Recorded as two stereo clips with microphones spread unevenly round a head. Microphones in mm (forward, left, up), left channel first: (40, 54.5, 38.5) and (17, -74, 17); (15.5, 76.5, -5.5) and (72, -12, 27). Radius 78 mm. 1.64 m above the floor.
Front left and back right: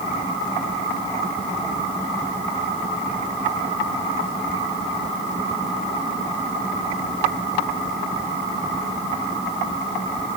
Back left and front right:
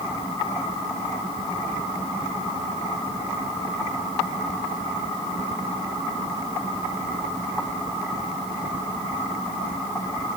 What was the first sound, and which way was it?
Only background noise.